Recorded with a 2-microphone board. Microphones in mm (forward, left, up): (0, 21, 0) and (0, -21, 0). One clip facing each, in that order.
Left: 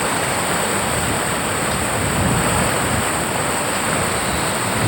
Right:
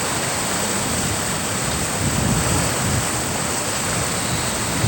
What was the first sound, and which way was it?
Running water, 15° left (ahead or behind).